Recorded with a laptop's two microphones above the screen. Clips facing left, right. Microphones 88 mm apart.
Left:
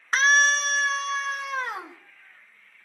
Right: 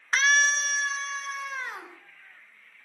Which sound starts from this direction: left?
A scream, at 0.1 s.